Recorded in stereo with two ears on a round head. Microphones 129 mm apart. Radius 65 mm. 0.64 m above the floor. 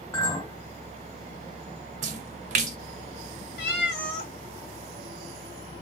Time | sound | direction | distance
0.1 | a clink | 20° left (ahead or behind) | 1.6 m
2.0 | a splash | 55° right (ahead or behind) | 0.6 m
3.6 | a cat meowing | 90° left | 0.8 m